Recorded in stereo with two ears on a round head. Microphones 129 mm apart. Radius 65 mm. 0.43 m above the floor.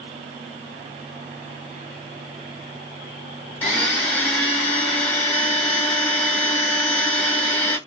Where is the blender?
10° left (ahead or behind), 1.1 m.